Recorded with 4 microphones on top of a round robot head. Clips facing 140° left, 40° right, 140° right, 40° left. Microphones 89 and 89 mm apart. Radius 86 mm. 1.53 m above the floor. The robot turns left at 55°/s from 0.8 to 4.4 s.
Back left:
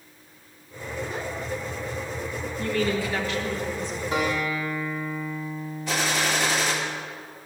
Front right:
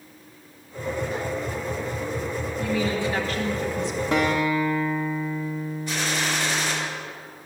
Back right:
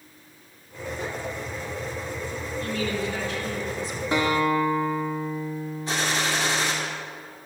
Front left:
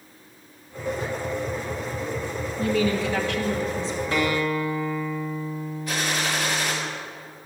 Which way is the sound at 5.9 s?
155° left.